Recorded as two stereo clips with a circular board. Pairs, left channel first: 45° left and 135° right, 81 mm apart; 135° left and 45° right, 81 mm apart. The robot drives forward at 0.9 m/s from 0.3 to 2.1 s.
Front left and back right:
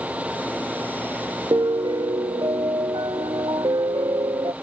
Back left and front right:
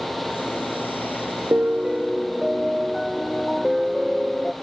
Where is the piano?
105° right; by 4.5 s 135° right.